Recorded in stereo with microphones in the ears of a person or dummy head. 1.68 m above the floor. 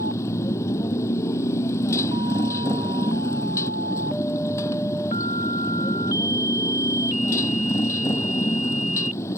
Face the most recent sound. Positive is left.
turn(degrees=20)  # may be behind; listen again after turning